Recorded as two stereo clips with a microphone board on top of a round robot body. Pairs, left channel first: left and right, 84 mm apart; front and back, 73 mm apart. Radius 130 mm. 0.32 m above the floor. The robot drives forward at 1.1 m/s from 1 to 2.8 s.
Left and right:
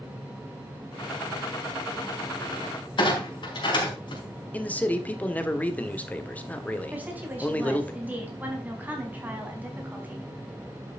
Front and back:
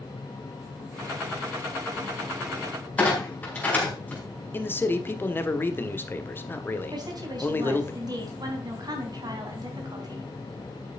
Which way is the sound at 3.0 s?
70° left.